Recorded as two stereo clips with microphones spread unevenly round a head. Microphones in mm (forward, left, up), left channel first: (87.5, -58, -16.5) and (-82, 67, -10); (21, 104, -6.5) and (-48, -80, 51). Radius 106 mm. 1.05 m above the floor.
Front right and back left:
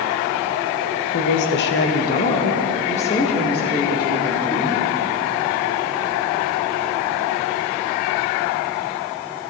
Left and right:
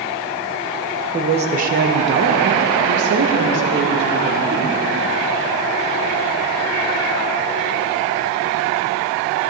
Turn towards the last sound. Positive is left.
turn(degrees=-110)